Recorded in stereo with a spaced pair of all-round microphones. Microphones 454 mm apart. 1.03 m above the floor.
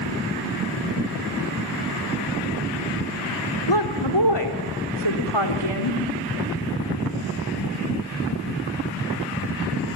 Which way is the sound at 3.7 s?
65° left (ahead or behind).